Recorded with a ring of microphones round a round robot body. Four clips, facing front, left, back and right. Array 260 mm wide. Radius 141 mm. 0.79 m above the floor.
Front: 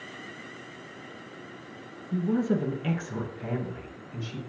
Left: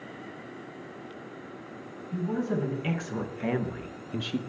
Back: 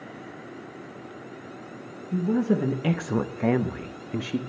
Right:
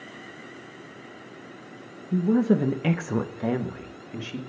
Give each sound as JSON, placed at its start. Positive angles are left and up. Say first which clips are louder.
{"t": 2.1, "sound": "a woman speaking", "louder": "right 8 dB, back 3 dB", "azimuth_deg": -95, "distance_m": 1.2}